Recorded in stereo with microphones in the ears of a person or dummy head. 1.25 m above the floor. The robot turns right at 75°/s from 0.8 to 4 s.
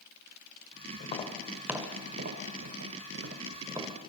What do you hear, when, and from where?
1.0 s tapping: 40° left (ahead or behind), 2.5 m; by 4.1 s centre (ahead or behind), 2.5 m